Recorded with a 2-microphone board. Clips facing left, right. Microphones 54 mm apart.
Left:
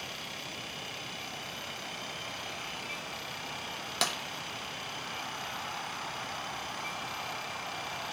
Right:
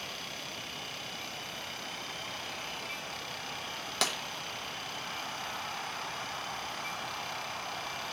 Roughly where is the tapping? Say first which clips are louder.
Even; centre.